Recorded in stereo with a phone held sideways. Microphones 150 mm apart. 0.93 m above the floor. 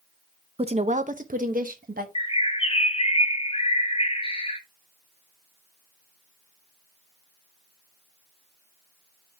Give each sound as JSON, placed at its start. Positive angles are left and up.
{"t": 0.6, "sound": "a woman speaking", "side_deg": -40, "distance_m": 0.6}
{"t": 2.1, "sound": "a bird", "side_deg": 40, "distance_m": 0.8}